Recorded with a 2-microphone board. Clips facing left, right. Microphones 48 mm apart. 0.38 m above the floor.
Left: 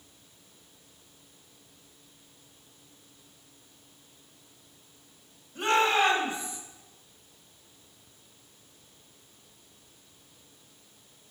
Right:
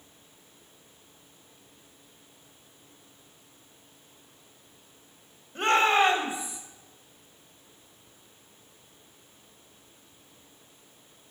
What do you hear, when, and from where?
5.5 s a shout: 50° right (ahead or behind), 1.6 m; by 6.6 s 5° right (ahead or behind), 1.7 m